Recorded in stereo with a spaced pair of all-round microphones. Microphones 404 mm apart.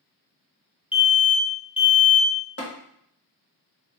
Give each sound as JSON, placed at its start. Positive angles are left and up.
{"t": 0.9, "sound": "an alarm", "side_deg": 15, "distance_m": 0.5}
{"t": 2.6, "sound": "tapping", "side_deg": 35, "distance_m": 1.1}